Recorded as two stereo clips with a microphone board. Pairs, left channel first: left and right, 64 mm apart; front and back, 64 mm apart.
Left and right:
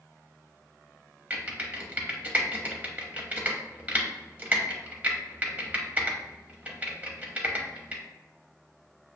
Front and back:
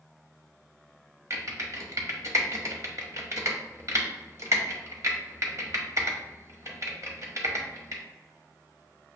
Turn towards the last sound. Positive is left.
turn(degrees=-155)